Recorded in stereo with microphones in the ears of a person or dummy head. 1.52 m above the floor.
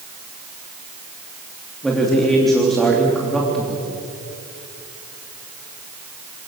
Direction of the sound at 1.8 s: Centre (ahead or behind).